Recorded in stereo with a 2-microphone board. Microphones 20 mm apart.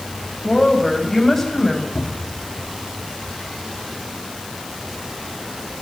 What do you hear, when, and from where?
0.4 s a woman speaking: 15° left (ahead or behind), 7.5 m; by 1.9 s 10° left (ahead or behind), 7 m
1.9 s a cupboard door: 25° left (ahead or behind), 2.5 m